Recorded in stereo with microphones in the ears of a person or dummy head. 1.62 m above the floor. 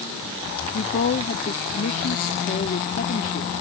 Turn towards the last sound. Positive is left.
turn(degrees=45)  # may be behind; listen again after turning